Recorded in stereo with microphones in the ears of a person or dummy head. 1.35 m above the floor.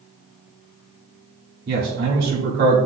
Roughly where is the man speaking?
Right.